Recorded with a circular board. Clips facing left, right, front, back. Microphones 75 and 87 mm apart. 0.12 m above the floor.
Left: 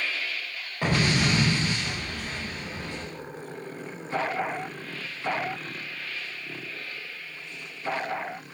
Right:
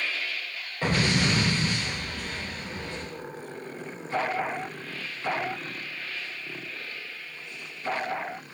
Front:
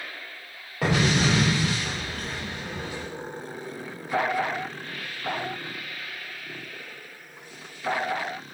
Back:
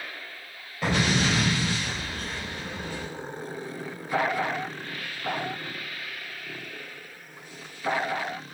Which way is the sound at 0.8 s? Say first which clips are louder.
Left 1 dB, front 2 dB; 15° left.